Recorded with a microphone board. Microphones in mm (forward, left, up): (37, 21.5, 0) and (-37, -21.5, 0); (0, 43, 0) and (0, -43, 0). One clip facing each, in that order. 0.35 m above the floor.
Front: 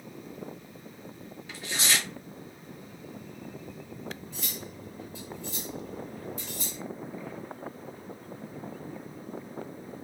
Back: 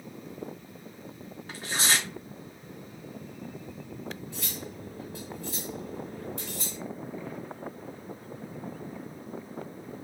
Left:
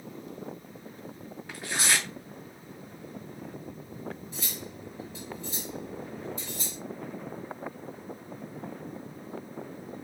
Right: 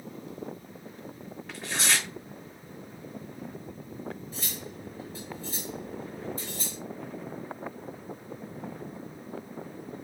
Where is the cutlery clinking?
145° right, 3.5 m.